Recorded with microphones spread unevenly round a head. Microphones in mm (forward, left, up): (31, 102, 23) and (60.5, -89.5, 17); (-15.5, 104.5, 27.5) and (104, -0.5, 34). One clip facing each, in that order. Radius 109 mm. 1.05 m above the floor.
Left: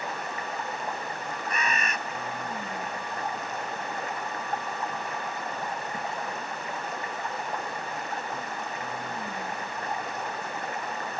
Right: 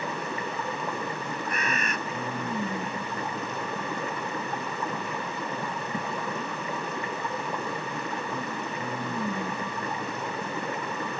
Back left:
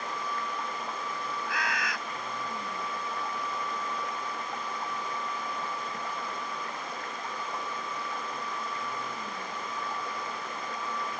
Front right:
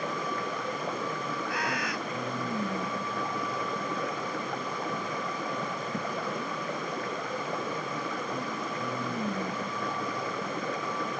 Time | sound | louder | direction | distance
0.0 | running water | right 3 dB, front right 3 dB | 80° right | ?
1.5 | a bird | left 1 dB, front right 1 dB | 130° left | ?